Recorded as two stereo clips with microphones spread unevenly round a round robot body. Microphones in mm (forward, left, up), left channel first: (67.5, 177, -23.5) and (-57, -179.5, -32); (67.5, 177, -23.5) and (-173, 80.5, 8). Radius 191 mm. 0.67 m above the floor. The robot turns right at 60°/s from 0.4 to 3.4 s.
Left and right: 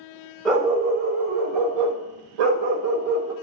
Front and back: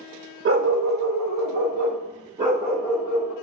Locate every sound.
0.5 s a dog barking: 160° left, 1.3 m; by 3.3 s 30° right, 1.3 m